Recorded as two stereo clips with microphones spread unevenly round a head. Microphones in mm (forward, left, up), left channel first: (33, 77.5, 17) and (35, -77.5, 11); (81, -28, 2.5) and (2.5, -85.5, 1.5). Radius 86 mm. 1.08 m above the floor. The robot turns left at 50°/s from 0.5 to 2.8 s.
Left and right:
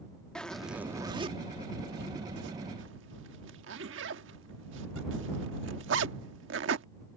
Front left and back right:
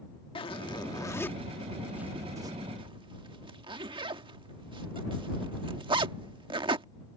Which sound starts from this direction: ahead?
A zipper, at 0.3 s.